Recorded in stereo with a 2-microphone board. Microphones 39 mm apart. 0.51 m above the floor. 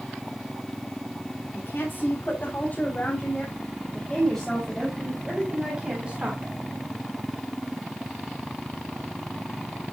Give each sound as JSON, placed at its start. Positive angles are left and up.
{"t": 1.5, "sound": "a woman speaking", "side_deg": 55, "distance_m": 4.5}